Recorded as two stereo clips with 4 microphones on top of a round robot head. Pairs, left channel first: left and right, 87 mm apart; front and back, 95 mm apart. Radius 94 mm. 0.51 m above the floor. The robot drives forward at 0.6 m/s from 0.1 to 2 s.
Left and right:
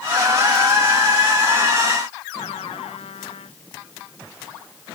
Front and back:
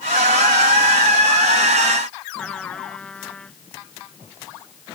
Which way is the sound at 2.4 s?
80° left.